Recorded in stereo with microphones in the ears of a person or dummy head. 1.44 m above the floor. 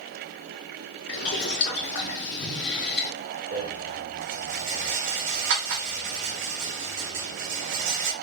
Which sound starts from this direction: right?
A rattle, at 3.5 s.